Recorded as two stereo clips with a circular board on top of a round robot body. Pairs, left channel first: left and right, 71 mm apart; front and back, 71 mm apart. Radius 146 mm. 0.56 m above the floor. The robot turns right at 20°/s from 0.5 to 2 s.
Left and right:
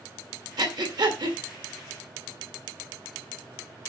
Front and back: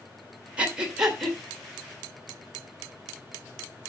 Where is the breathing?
110° right, 2 m; by 1.4 s 90° right, 2 m.